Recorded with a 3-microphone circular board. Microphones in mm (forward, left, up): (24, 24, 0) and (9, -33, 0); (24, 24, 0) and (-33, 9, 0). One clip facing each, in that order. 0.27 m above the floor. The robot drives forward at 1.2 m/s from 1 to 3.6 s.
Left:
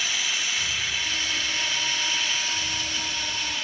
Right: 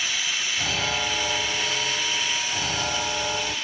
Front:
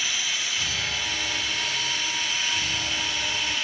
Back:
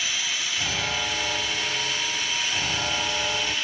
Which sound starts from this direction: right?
An alarm, at 0.6 s.